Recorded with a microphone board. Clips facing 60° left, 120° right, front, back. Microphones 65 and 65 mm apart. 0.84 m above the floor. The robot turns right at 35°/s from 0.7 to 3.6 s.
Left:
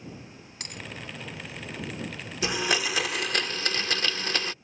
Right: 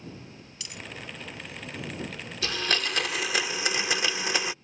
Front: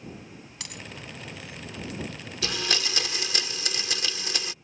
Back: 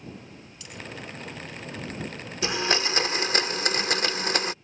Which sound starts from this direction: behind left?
A blender, at 2.4 s.